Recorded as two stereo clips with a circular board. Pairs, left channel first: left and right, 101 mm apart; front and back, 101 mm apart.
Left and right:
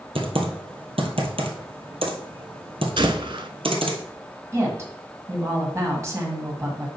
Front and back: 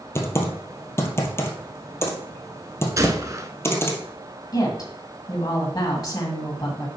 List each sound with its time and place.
0.1 s typing on a keyboard: 65° right, 1.4 m
3.0 s a gunshot: 125° right, 0.6 m
4.5 s a woman speaking: 40° right, 1.9 m